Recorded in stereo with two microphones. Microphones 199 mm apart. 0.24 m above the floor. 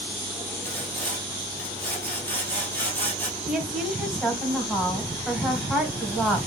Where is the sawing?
10° left (ahead or behind), 1.9 m.